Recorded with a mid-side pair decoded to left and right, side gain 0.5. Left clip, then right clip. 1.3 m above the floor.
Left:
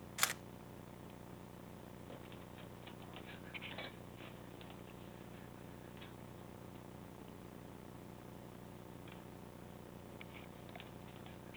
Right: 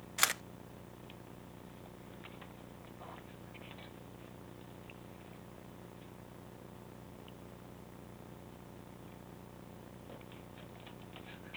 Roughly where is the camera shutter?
Ahead right.